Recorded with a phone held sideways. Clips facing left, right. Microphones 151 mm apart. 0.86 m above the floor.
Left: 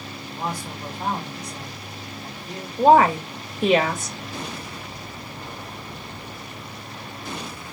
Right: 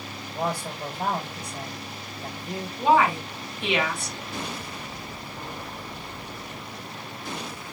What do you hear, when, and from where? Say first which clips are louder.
0.3 s a man speaking: right 2 dB; 65° right (ahead or behind), 3.5 m
2.8 s a woman speaking: left 6 dB; 45° left (ahead or behind), 1.1 m